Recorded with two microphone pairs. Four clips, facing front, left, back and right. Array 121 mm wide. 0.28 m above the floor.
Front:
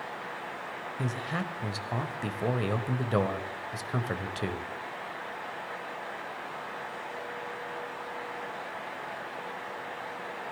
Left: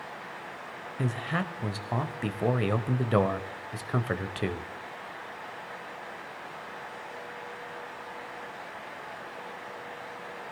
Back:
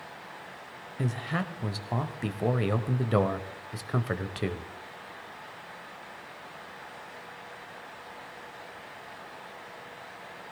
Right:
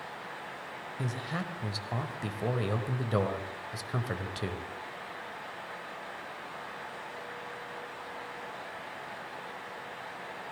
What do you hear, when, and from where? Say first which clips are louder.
1.0 s a man speaking: left 5 dB, back 2 dB; 115° left, 0.9 m